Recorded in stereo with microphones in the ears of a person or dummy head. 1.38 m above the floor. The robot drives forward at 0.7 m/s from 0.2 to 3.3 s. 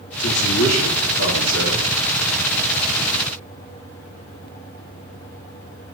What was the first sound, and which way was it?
A man speaking, 85° left.